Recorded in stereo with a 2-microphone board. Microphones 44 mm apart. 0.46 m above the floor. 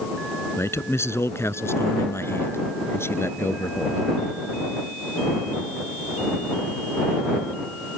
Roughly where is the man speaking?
Left.